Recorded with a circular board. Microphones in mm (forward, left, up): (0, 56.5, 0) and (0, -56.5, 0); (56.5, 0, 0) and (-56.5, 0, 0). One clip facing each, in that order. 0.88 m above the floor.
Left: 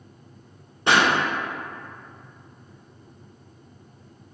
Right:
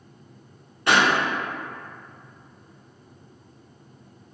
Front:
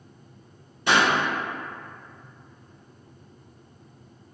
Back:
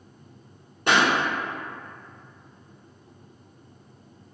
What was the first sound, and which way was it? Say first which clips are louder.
A pop: even, even; 155° left.